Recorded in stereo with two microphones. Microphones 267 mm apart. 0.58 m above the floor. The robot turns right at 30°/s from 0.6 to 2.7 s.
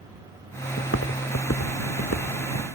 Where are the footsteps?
60° left (ahead or behind); by 2.7 s 65° left (ahead or behind).